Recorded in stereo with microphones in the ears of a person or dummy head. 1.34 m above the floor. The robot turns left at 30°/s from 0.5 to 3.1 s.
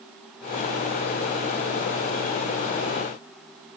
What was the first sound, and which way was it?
Only background noise.